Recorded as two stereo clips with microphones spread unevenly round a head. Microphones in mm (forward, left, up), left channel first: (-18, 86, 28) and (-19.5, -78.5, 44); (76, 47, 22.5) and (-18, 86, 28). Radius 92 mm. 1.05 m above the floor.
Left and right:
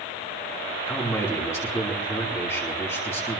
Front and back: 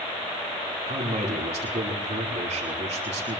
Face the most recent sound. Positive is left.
turn(degrees=165)